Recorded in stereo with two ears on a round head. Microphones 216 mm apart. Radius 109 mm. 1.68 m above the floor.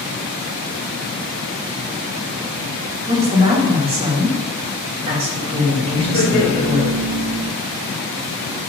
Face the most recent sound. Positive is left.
turn(degrees=70)  # may be behind; listen again after turning